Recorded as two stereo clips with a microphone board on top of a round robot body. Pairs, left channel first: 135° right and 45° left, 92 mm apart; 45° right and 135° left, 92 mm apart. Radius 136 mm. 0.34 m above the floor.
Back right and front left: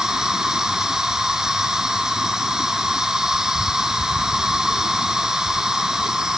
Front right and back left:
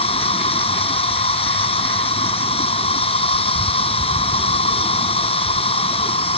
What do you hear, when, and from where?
0.0 s an insect: 40° right